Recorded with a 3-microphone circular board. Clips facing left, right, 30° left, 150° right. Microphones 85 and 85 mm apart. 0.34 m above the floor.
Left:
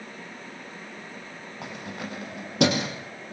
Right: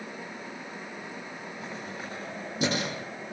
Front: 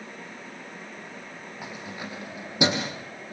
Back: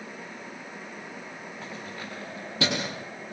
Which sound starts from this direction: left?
Keys jangling, at 1.6 s.